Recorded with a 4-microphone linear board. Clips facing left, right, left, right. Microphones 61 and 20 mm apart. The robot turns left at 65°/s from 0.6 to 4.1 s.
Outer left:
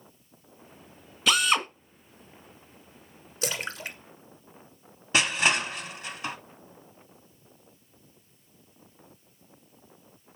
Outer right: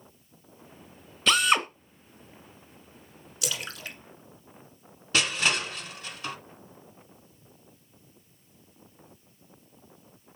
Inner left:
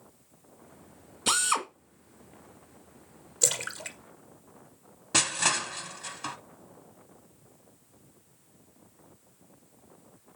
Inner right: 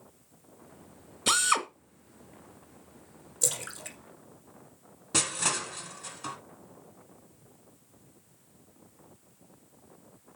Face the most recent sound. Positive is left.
turn(degrees=15)  # may be behind; listen again after turning